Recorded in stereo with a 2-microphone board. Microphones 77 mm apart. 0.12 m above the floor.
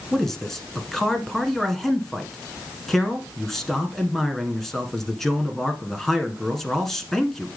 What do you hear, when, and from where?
0.1 s a man speaking: 5° left (ahead or behind), 1.2 m